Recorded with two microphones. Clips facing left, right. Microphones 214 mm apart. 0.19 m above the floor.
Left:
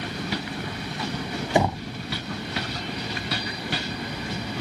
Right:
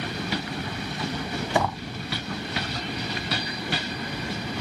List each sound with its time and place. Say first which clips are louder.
1.6 s knocking: left 4 dB; 25° left (ahead or behind)